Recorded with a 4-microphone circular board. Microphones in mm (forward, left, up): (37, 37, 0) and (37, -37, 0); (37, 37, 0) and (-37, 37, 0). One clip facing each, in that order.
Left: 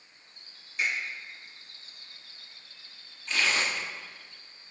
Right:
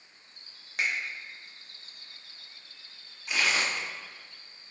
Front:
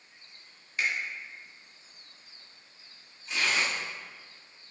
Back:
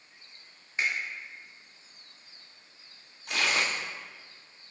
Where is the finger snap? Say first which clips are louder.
Even, even; 115° right, 1.0 m.